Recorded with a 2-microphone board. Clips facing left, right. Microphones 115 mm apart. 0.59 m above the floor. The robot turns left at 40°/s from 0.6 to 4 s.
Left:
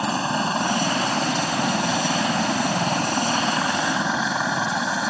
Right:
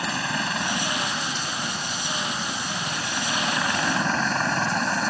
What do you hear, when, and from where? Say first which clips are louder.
0.0 s a helicopter: left 5 dB; 25° left (ahead or behind); by 5.1 s 5° left (ahead or behind)